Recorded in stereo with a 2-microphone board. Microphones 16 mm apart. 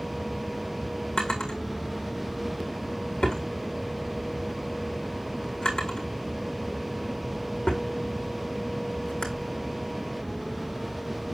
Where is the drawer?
60° left (ahead or behind), 5 m.